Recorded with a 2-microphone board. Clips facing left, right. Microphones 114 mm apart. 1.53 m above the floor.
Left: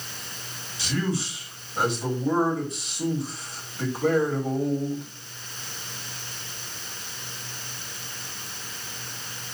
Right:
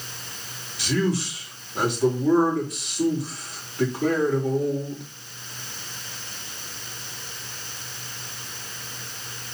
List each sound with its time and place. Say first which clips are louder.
0.8 s a man speaking: right 4 dB; 75° right (ahead or behind), 4 m